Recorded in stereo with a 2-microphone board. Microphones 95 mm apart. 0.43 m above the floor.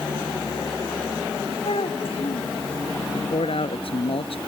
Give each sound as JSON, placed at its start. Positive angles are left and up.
{"t": 1.6, "sound": "a child speaking", "side_deg": 75}
{"t": 3.1, "sound": "a man speaking", "side_deg": 75}